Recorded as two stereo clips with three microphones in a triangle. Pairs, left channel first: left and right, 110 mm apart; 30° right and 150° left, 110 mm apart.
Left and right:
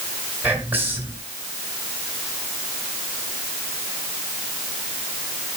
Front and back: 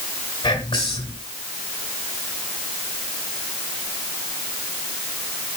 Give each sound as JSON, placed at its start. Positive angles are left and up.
{"t": 0.4, "sound": "whispering", "azimuth_deg": -20, "distance_m": 1.8}